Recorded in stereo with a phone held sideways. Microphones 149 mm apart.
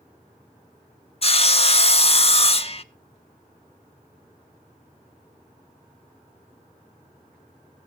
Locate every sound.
1.2 s sawing: 40° left (ahead or behind), 0.7 m